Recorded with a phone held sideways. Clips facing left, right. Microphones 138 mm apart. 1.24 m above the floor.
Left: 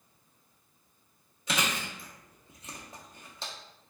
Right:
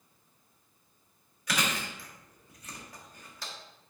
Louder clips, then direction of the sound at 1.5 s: Even; 25° left (ahead or behind).